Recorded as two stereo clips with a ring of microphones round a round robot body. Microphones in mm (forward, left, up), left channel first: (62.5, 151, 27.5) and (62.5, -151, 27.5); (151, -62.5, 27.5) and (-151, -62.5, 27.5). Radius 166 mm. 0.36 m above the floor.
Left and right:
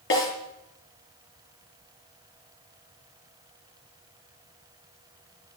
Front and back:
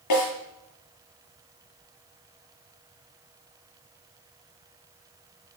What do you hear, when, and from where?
0.1 s a snare drum: 40° left, 7 m